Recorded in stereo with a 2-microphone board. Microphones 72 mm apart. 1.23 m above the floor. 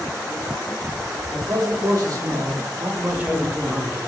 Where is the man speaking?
65° right (ahead or behind), 1.3 m; by 4.0 s 25° left (ahead or behind), 0.6 m.